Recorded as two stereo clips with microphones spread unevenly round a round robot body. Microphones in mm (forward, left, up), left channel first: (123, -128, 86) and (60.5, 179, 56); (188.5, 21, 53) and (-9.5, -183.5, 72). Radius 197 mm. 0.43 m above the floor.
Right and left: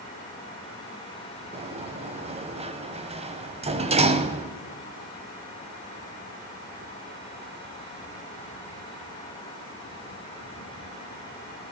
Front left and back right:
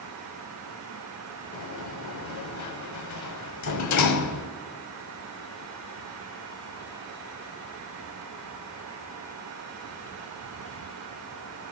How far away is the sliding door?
About 0.9 m.